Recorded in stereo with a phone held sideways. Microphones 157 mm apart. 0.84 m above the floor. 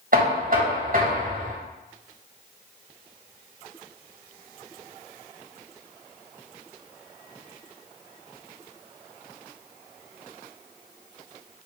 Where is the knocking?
60° right (ahead or behind), 1.0 m.